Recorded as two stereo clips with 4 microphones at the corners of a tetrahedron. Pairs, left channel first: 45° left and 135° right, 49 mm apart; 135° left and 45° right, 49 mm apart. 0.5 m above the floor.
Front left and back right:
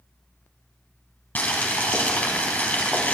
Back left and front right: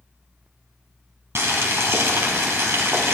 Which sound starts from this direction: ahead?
Boiling, at 1.4 s.